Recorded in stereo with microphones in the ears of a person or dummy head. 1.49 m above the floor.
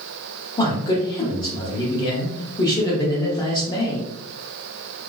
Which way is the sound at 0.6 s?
20° left (ahead or behind).